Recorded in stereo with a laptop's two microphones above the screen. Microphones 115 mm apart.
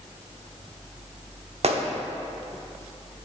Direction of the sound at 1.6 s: 60° right (ahead or behind).